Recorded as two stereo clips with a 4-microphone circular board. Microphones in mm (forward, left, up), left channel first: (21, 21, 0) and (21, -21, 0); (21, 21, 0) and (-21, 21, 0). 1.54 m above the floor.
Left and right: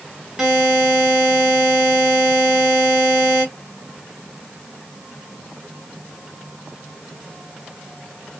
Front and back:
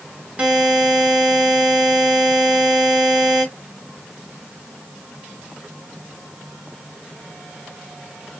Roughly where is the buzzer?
Behind right.